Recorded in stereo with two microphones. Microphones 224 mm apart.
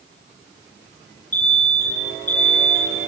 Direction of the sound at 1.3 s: 30° left (ahead or behind).